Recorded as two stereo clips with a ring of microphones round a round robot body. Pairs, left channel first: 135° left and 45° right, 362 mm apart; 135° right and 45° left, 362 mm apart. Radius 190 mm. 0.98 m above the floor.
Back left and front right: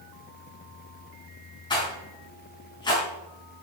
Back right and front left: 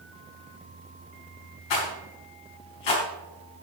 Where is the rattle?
145° right, 4.5 m.